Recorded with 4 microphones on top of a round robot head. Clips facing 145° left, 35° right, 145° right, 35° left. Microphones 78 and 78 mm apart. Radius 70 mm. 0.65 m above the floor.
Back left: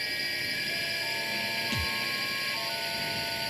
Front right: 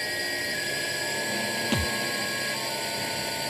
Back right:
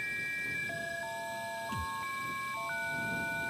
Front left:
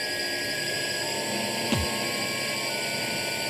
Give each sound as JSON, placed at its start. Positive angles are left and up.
{"t": 0.0, "sound": "a drone", "azimuth_deg": 25}
{"t": 1.7, "sound": "a thud", "azimuth_deg": 10}